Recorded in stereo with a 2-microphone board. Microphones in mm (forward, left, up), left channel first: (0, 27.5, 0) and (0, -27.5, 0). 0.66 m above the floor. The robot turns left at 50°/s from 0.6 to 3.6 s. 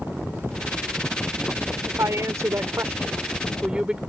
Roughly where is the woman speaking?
Right.